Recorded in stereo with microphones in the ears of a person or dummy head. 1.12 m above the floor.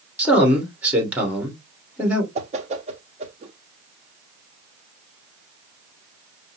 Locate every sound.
0.2 s a man speaking: 5° right (ahead or behind), 1.7 m
2.4 s a whoosh: 30° right (ahead or behind), 0.6 m